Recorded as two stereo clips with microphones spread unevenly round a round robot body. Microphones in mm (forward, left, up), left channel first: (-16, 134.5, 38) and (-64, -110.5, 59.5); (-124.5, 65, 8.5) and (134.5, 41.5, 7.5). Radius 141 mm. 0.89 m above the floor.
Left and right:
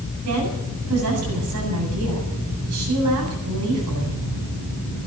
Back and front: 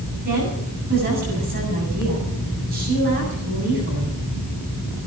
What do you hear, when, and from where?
0.2 s a woman speaking: 65° right, 8 m